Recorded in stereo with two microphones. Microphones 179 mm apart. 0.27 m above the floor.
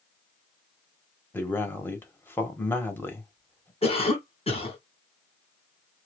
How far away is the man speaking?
About 1.1 m.